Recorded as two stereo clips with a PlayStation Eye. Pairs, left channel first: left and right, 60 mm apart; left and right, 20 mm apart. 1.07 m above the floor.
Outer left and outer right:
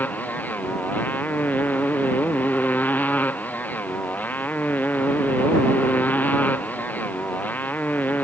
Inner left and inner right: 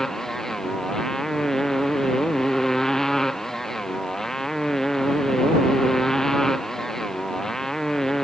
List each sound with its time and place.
0.0 s a motorcycle: 30° left (ahead or behind)